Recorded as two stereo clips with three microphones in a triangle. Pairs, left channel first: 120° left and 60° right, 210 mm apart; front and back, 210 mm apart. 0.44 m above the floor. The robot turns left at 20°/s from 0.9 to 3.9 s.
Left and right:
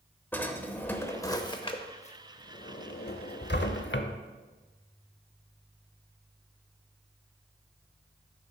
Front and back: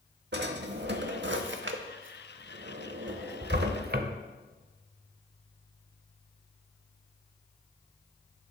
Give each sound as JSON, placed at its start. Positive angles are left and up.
{"t": 0.3, "sound": "a drawer", "azimuth_deg": -160, "distance_m": 0.7}